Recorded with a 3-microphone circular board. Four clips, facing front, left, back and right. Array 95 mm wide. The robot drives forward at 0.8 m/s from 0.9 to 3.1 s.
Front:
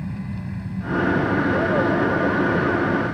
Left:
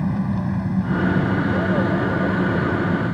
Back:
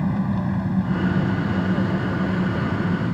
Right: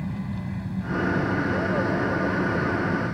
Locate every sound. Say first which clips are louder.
0.0 s an engine running: left 9 dB, back 8 dB; 140° left; by 3.1 s 150° left